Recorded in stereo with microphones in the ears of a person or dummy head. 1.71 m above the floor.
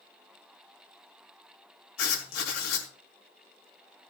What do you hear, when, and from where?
2.0 s writing: 80° left, 4 m